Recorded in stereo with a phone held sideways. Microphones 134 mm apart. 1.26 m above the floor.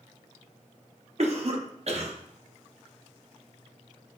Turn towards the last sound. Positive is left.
turn(degrees=-55)  # may be behind; listen again after turning